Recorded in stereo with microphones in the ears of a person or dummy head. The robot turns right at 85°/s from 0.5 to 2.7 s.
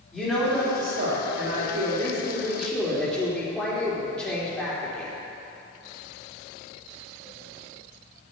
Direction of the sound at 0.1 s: Straight behind.